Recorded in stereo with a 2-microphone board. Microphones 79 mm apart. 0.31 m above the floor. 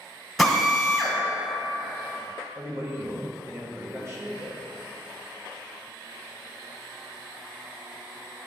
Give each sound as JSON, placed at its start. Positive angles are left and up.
{"t": 0.4, "sound": "a drill", "side_deg": 0, "distance_m": 1.5}
{"t": 2.5, "sound": "a man speaking", "side_deg": -35, "distance_m": 1.0}